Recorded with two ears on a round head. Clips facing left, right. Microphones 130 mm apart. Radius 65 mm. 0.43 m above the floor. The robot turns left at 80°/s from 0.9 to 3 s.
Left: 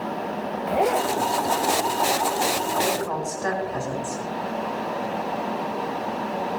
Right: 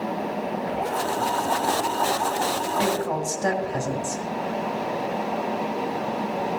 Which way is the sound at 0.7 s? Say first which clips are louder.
Left 8 dB; 70° left (ahead or behind).